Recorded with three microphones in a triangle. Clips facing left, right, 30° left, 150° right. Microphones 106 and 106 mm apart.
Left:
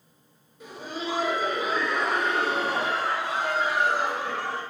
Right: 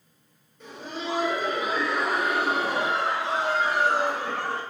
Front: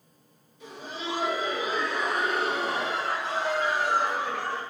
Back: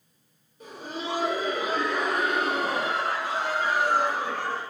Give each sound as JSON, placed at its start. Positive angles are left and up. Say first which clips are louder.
{"t": 0.6, "sound": "laughter", "louder": "left 1 dB, back 2 dB", "azimuth_deg": 170, "distance_m": 2.5}